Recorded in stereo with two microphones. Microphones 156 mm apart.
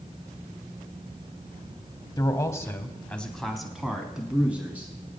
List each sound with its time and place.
2.2 s a man speaking: 25° left (ahead or behind), 1.0 m; by 4.9 s 10° right (ahead or behind), 2 m